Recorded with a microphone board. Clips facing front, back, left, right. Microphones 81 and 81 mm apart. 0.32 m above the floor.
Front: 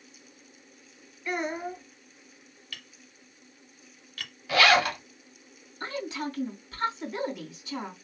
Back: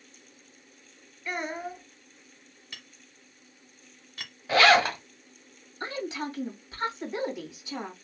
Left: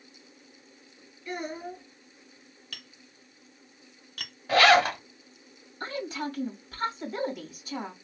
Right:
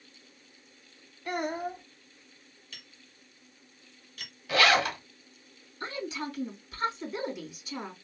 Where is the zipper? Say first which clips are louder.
Back 2 dB, left 5 dB; 130° left, 1.5 m.